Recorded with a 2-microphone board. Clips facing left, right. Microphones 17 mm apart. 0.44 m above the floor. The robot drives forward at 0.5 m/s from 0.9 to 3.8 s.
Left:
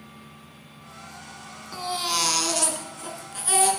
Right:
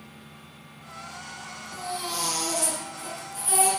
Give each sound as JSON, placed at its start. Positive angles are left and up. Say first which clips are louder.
{"t": 1.7, "sound": "a baby crying", "louder": "left 6 dB", "side_deg": 60, "distance_m": 1.1}